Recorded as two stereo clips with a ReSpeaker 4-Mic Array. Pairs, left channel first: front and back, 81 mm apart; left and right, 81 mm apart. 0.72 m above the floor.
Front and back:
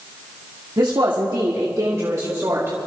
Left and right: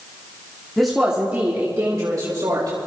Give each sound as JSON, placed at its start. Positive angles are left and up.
{"t": 0.8, "sound": "a woman speaking", "azimuth_deg": 175, "distance_m": 1.6}